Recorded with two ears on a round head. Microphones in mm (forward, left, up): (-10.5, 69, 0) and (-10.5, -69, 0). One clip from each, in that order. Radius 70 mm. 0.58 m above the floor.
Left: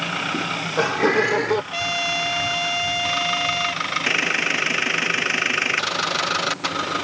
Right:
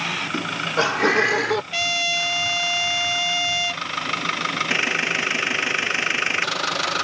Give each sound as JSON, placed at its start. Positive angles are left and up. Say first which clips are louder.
{"t": 0.3, "sound": "laughter", "louder": "right 1 dB", "side_deg": -30}
{"t": 1.7, "sound": "a trumpet", "louder": "right 2 dB", "side_deg": -45}